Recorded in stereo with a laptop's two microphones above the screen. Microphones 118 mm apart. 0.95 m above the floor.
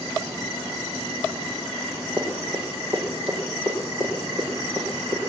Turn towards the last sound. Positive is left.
turn(degrees=35)  # may be behind; listen again after turning